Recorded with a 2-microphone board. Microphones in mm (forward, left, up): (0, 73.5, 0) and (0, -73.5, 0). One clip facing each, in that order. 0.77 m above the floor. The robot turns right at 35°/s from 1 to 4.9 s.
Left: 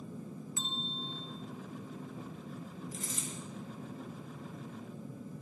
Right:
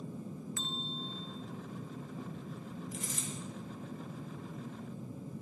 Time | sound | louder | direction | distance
0.6 | a bell | even | 20° left (ahead or behind) | 0.6 m
2.9 | a dropped coin | even | 45° left (ahead or behind) | 2.5 m